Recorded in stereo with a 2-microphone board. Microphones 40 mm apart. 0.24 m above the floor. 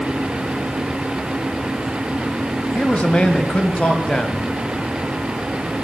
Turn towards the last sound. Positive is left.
turn(degrees=25)  # may be behind; listen again after turning